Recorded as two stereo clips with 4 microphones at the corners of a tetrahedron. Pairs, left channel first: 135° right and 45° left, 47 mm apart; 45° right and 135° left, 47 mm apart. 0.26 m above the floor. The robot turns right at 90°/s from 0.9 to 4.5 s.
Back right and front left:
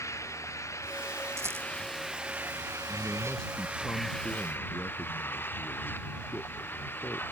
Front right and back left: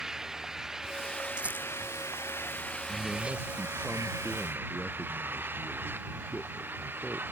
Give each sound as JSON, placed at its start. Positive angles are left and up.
{"t": 0.0, "sound": "an engine running", "azimuth_deg": -145}
{"t": 1.4, "sound": "a rattle", "azimuth_deg": 65}
{"t": 2.9, "sound": "a man speaking", "azimuth_deg": 105}